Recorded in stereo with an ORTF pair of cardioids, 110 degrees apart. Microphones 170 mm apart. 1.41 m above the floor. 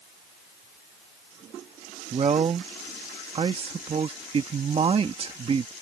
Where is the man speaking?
35° right.